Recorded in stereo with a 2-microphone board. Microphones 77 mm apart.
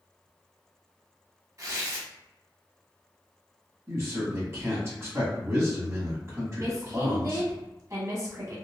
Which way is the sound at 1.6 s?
45° right (ahead or behind).